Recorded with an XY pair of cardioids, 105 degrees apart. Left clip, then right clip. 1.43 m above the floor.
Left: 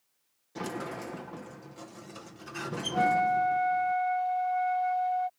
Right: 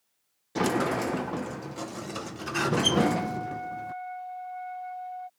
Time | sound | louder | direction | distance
0.6 | a sliding door | right 10 dB | 65° right | ?
2.9 | a flute | left 2 dB | 55° left | ?